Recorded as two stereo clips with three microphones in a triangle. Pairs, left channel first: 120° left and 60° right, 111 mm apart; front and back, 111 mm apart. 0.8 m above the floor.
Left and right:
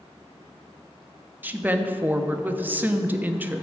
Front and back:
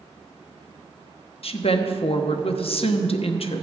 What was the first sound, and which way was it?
A woman speaking, 15° left.